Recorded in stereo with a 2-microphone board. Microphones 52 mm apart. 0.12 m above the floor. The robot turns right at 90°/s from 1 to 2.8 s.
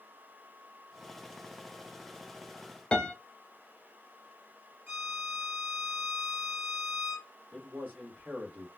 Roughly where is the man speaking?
Right.